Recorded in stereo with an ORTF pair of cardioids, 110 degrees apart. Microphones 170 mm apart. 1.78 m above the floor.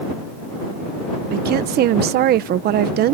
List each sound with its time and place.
1.3 s a woman speaking: 70° right